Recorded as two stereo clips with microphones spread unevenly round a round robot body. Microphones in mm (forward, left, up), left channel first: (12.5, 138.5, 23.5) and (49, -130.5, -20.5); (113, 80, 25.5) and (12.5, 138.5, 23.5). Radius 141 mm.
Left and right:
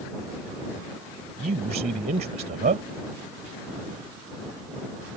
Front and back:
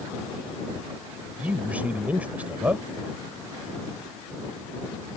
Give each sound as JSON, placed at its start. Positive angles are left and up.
{"t": 1.4, "sound": "a man speaking", "azimuth_deg": -135}